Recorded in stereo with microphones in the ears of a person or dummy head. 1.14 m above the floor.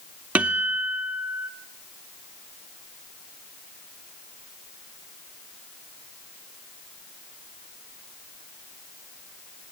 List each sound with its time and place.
0.3 s a guitar: 10° right (ahead or behind), 0.7 m